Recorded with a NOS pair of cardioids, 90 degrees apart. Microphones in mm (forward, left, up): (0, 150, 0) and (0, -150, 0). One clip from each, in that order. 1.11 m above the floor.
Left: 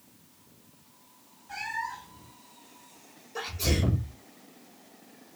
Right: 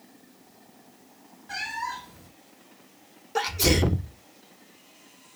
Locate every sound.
1.5 s a cat meowing: 65° right, 1.4 m
3.4 s a sneeze: 65° right, 1.1 m